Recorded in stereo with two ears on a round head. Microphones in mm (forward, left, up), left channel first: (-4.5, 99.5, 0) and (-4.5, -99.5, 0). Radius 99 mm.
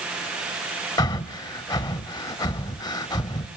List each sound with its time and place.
1.0 s breathing: 15° left (ahead or behind), 0.5 m